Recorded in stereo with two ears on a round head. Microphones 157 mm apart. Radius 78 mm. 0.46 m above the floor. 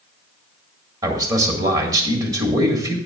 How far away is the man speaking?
About 1.8 m.